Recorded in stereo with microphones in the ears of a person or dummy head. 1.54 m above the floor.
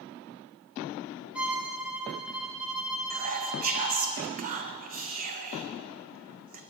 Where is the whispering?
35° right (ahead or behind), 1.5 m.